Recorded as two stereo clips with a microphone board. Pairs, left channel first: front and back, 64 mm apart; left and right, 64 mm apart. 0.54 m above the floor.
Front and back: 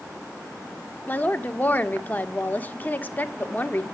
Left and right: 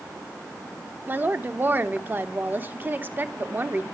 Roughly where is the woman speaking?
Ahead right.